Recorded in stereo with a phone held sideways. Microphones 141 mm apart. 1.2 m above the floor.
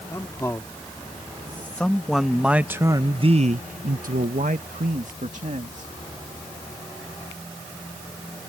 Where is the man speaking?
20° left (ahead or behind); by 5.9 s 55° right (ahead or behind).